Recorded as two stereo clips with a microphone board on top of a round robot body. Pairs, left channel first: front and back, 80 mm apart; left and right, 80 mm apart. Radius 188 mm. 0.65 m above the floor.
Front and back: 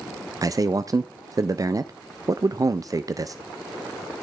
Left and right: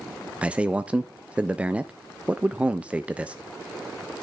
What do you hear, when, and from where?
0.4 s a man speaking: 160° right, 0.7 m